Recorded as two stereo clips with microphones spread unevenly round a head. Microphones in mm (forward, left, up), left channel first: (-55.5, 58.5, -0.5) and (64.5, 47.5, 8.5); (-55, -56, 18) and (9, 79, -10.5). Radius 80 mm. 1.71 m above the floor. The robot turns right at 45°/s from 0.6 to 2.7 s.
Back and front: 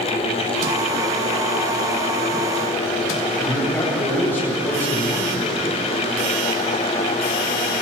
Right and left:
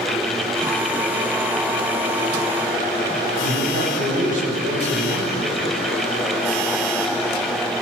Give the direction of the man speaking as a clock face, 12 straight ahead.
9 o'clock.